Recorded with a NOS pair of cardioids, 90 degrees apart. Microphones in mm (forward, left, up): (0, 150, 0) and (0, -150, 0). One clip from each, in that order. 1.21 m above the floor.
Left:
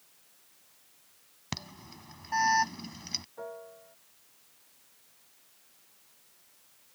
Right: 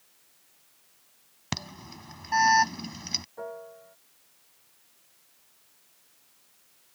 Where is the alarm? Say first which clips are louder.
Right 5 dB; 35° right.